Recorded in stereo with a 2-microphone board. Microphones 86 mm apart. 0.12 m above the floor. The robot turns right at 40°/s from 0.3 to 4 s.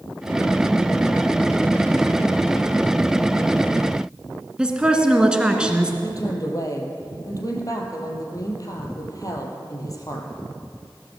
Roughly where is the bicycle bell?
No bicycle bell in this recording.